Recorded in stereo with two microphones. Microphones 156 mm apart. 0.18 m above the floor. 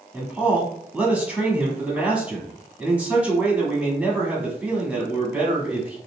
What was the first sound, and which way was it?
A man speaking, 10° right (ahead or behind).